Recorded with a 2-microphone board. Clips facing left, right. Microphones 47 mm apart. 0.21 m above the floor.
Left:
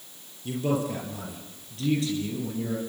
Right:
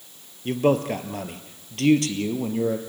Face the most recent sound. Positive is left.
turn(degrees=-75)  # may be behind; listen again after turning